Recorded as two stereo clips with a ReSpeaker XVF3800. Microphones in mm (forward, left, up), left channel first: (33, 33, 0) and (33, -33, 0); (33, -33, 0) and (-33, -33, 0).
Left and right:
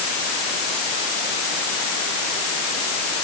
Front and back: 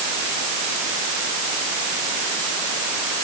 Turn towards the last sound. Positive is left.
No sound to turn to.